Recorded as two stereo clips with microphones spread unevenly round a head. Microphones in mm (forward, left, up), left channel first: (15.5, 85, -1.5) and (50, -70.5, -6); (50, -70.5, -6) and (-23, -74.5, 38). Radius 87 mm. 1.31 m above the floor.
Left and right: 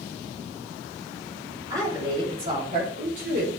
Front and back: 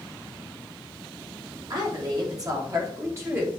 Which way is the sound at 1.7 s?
150° right.